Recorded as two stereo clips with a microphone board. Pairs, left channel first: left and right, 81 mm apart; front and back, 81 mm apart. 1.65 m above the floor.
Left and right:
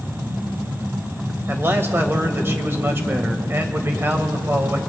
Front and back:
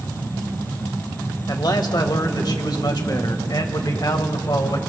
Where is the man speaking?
30° right, 1.6 m.